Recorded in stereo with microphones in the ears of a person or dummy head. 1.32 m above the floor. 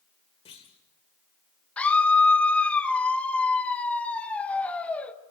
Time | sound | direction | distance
0.5 | a clunk | 30° left (ahead or behind) | 1.9 m
1.8 | a scream | 5° left (ahead or behind) | 1.4 m